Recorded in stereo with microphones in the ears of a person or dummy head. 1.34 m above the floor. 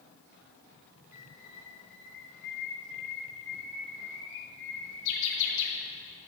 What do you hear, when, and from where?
1.1 s a bird: 65° left (ahead or behind), 3.5 m